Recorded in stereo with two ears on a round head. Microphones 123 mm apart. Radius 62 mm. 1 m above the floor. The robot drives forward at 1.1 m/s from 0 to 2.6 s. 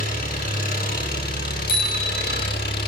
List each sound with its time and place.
0.0 s an engine running: 60° left (ahead or behind), 8 m; by 2.9 s 80° left, 7 m
1.7 s a bicycle bell: 80° left, 7 m; by 2.5 s 70° left (ahead or behind), 7 m